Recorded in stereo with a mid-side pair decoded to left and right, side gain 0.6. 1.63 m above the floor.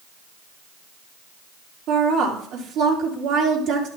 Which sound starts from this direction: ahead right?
A woman speaking, at 1.9 s.